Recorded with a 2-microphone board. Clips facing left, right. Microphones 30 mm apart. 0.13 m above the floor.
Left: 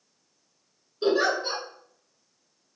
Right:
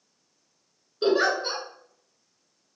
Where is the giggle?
20° right (ahead or behind), 1.6 m.